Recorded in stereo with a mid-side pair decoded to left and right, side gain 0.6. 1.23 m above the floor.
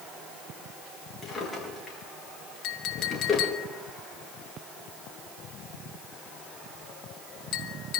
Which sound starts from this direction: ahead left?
A clink, at 2.6 s.